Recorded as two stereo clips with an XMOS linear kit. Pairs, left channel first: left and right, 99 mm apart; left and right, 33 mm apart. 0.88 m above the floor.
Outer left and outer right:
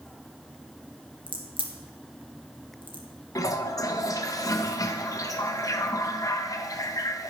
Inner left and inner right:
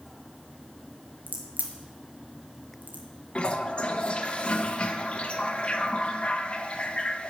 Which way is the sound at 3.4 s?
35° left (ahead or behind).